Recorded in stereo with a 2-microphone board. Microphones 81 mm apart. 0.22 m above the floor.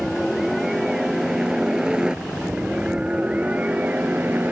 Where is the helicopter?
Centre (ahead or behind); by 4.5 s 20° right (ahead or behind).